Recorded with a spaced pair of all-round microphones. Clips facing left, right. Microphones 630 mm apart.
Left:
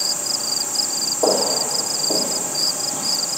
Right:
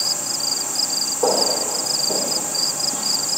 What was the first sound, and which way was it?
Footsteps, 35° right (ahead or behind).